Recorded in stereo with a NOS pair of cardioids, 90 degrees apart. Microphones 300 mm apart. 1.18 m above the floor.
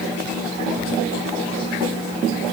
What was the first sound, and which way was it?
Only background noise.